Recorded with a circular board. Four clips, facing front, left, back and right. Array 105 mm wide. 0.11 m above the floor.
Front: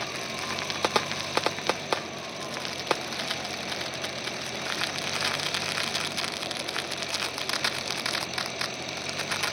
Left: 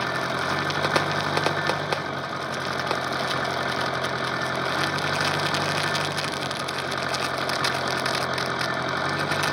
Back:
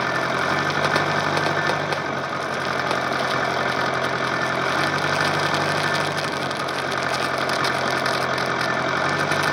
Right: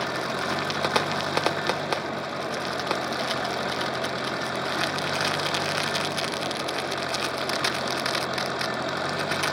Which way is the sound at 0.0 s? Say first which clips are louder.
Left 2 dB, back 13 dB; 170° left.